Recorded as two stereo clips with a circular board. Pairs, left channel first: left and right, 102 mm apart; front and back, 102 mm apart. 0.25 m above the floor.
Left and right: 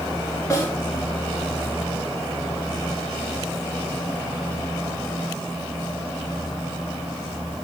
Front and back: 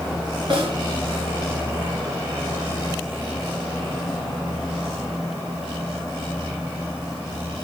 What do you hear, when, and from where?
0.5 s a snare drum: 150° left, 2.0 m